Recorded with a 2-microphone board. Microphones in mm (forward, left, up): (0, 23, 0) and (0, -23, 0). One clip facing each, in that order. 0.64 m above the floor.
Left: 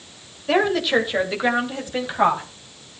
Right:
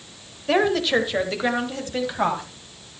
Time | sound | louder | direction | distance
0.5 | a woman speaking | left 1 dB | 5° left (ahead or behind) | 2.5 m